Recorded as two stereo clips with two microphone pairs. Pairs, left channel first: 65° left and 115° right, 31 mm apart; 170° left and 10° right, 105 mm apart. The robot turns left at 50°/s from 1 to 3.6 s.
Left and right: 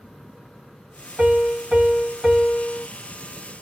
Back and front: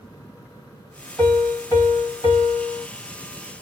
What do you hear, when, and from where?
1.2 s a piano: 110° right, 1.6 m; by 2.9 s 165° left, 1.6 m